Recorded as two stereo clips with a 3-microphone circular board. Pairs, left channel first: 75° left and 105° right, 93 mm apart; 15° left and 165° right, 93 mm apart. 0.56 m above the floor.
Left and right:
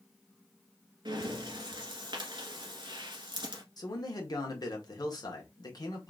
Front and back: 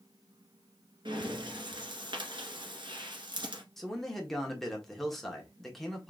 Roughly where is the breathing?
Behind right.